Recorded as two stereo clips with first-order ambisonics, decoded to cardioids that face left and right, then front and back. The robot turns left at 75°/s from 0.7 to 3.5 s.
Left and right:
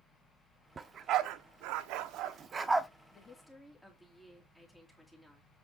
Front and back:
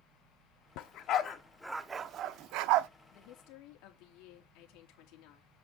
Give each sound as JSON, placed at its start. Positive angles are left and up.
{"t": 0.8, "sound": "a dog barking", "azimuth_deg": -20, "distance_m": 0.7}
{"t": 3.1, "sound": "a woman speaking", "azimuth_deg": 30, "distance_m": 2.5}